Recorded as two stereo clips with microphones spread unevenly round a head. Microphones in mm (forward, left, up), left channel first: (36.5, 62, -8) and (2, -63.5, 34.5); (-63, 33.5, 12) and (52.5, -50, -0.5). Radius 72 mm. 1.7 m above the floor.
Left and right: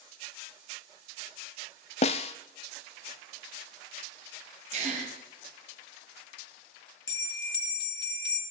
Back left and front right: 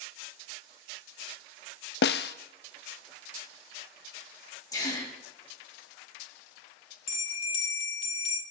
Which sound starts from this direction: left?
A bell, at 7.1 s.